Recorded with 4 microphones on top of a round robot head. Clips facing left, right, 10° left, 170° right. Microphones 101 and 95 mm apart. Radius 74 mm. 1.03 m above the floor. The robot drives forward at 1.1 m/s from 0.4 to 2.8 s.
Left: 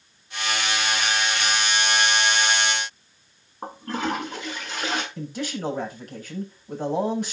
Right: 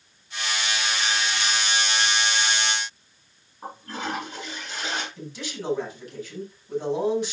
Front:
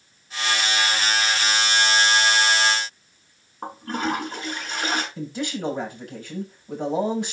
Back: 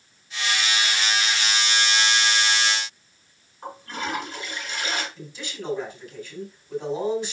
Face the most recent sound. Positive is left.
turn(degrees=45)